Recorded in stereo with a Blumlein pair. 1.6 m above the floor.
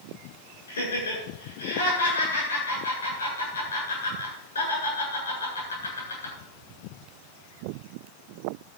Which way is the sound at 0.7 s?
70° left.